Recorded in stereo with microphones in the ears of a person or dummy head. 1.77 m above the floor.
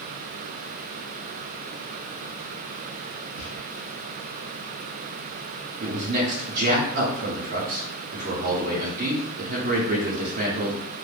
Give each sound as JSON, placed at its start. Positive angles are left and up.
{"t": 3.4, "sound": "whispering", "side_deg": 80, "distance_m": 1.1}
{"t": 5.8, "sound": "a man speaking", "side_deg": -50, "distance_m": 0.7}